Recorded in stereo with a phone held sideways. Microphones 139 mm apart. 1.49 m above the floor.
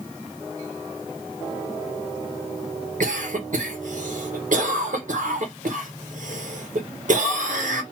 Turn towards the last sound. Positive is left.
turn(degrees=-70)  # may be behind; listen again after turning